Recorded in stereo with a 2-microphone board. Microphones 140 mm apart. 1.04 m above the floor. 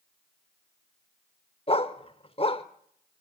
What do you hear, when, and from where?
1.7 s a dog barking: 40° left (ahead or behind), 0.9 m